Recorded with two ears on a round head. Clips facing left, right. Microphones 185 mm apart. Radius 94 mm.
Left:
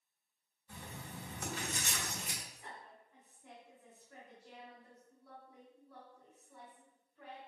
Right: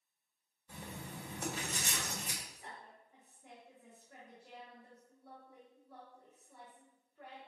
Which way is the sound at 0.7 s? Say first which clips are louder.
Right 2 dB; 40° right (ahead or behind).